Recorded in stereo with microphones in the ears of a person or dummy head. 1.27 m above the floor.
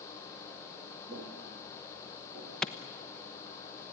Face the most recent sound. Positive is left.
turn(degrees=0)  # may be behind; listen again after turning